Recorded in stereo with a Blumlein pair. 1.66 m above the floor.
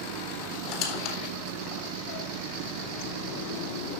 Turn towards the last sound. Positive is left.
turn(degrees=45)